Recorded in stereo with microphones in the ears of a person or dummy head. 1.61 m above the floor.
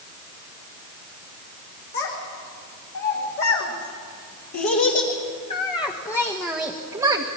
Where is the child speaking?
65° left (ahead or behind), 3.5 m; by 7.3 s 30° right (ahead or behind), 1.2 m.